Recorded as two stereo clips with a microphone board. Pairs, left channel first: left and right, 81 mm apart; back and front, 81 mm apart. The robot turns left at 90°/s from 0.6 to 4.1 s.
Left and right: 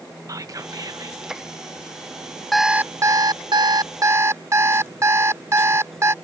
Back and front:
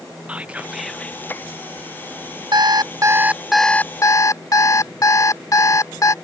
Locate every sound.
0.3 s whispering: 70° right; by 1.2 s 125° right
2.5 s an alarm clock: straight ahead; by 6.1 s 140° right